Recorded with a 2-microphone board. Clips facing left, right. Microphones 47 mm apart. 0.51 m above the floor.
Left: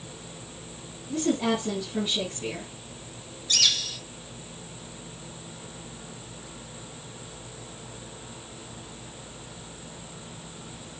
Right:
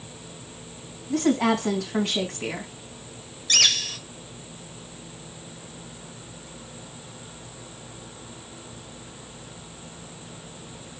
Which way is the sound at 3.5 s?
55° right (ahead or behind).